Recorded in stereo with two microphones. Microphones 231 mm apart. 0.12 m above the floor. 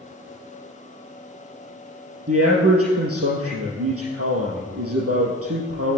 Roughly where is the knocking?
No knocking in this recording.